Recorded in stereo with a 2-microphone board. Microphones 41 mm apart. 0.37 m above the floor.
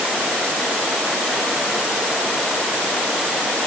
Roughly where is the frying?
I don't hear frying.